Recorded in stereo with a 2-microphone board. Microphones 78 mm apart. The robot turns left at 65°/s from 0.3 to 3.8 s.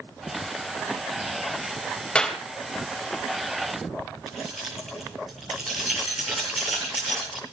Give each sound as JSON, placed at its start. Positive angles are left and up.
{"t": 2.1, "sound": "a clap", "side_deg": 15, "distance_m": 2.5}
{"t": 4.3, "sound": "keys jangling", "side_deg": -5, "distance_m": 8.5}